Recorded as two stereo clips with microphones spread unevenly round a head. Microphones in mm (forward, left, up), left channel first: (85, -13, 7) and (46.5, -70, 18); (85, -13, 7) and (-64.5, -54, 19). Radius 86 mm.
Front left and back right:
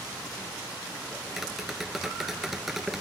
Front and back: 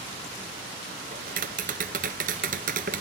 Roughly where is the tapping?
Behind left.